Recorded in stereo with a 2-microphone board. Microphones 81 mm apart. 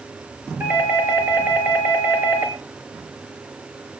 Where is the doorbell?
25° right (ahead or behind), 3.5 m.